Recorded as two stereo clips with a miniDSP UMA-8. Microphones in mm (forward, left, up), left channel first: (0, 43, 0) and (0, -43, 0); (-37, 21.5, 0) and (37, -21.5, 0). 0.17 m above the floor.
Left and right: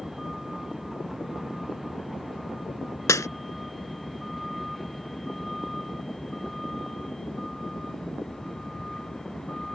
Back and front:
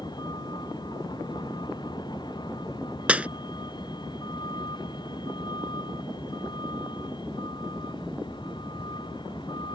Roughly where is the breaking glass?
Ahead left.